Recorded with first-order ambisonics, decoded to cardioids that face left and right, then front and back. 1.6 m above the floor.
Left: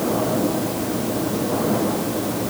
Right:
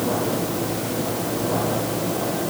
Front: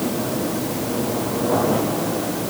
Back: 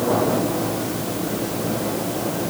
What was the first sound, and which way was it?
Only background noise.